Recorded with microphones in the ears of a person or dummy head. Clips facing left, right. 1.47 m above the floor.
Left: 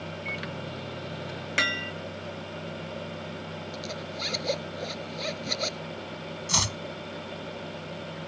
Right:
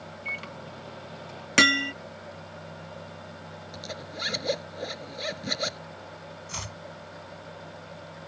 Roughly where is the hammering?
Right.